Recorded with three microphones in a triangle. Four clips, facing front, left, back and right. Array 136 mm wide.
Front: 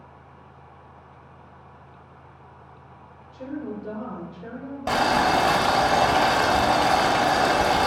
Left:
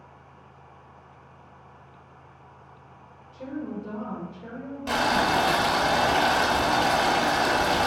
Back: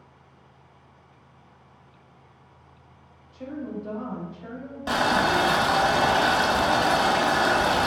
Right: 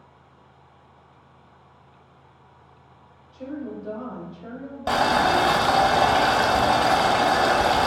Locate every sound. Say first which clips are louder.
3.3 s a woman speaking: right 1 dB, front 1 dB; 15° left, 1.5 m
4.9 s boiling: right 4 dB, front 2 dB; 50° right, 0.6 m